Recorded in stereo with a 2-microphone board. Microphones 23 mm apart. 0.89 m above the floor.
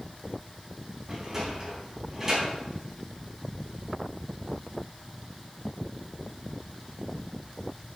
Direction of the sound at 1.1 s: 20° right (ahead or behind).